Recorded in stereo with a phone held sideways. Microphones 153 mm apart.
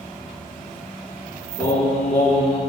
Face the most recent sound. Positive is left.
turn(degrees=45)  # may be behind; listen again after turning